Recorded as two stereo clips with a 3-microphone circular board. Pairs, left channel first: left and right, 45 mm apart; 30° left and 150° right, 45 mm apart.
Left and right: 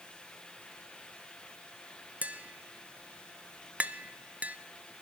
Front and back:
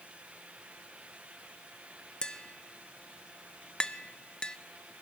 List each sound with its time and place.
2.2 s tapping: 35° right, 0.5 m